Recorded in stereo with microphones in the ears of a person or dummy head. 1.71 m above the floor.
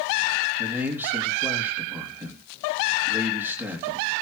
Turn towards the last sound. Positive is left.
turn(degrees=-10)  # may be behind; listen again after turning